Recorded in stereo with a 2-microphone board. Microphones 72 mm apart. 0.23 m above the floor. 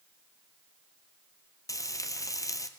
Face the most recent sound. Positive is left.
turn(degrees=50)  # may be behind; listen again after turning